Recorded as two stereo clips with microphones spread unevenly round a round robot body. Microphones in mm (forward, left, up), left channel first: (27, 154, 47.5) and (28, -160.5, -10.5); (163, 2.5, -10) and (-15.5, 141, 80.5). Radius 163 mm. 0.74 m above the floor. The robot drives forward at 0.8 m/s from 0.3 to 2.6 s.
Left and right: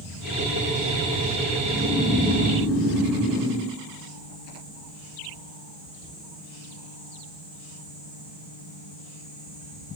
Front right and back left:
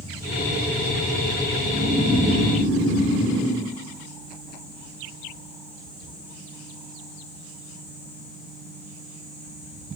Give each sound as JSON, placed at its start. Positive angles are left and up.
{"t": 1.6, "sound": "snoring", "azimuth_deg": -160, "distance_m": 1.9}